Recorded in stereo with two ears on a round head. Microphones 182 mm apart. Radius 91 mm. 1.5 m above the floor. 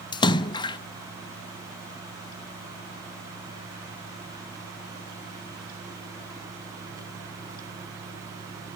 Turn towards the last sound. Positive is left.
turn(degrees=20)  # may be behind; listen again after turning